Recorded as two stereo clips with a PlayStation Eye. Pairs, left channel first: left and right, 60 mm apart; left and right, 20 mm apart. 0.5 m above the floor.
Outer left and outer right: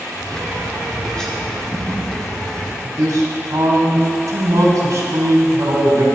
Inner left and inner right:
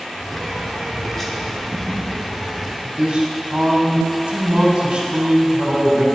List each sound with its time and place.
0.2 s a bird: 10° left (ahead or behind), 1.5 m
2.8 s a man speaking: 60° right (ahead or behind), 3 m